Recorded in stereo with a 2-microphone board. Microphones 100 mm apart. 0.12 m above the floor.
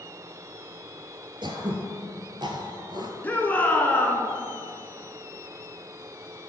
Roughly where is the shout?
Centre.